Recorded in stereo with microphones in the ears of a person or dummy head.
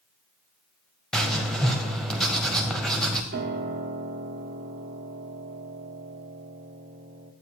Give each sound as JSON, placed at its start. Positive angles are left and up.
{"t": 1.1, "sound": "writing", "side_deg": 5, "distance_m": 1.0}
{"t": 3.3, "sound": "a piano", "side_deg": -55, "distance_m": 1.1}